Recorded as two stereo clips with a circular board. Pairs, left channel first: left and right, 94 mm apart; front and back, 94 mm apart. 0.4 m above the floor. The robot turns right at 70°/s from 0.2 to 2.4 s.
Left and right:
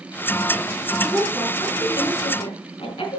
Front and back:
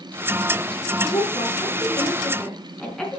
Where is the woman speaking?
15° right, 4 m; by 3.2 s 80° left, 4 m.